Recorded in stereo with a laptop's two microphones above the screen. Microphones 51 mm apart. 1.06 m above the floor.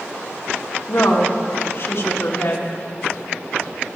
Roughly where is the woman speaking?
Left.